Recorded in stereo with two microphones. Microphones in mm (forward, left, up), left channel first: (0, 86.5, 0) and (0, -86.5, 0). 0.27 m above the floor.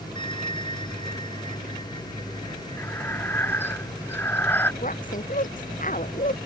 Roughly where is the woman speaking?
Left.